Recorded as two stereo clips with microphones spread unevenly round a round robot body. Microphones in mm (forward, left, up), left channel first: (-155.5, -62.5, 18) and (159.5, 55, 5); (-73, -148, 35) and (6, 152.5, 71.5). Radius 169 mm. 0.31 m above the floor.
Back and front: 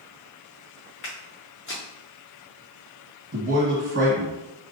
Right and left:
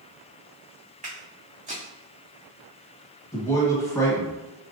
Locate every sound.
1.0 s footsteps: 145° left, 1.8 m
3.3 s a man speaking: 25° right, 1.3 m